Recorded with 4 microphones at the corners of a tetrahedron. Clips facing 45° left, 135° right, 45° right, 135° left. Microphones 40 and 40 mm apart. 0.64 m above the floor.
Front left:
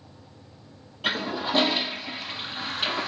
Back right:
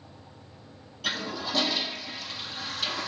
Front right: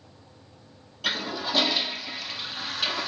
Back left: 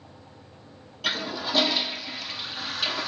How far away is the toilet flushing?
About 0.6 m.